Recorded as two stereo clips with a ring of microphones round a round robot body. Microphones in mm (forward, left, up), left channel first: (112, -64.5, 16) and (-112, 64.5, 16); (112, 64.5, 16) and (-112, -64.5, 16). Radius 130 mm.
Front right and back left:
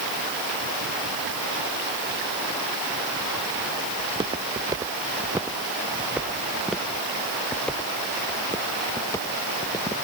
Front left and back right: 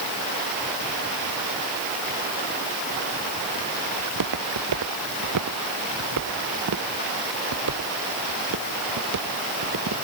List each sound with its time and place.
4.0 s footsteps: 140° right; by 9.9 s 110° right